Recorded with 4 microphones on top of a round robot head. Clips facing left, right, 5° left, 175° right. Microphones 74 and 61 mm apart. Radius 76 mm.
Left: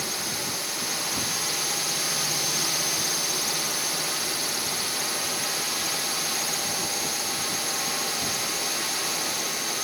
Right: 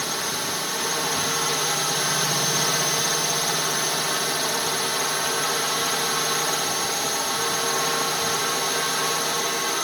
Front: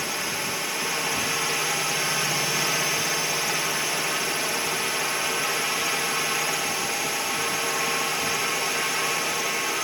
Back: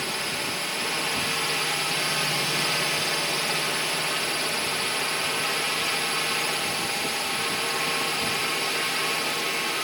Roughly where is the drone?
Right.